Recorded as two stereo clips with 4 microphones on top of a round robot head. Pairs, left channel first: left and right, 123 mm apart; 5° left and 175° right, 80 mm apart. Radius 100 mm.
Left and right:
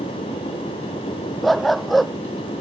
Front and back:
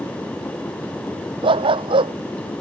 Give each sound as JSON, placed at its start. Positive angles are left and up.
{"t": 1.4, "sound": "a dog barking", "azimuth_deg": 180}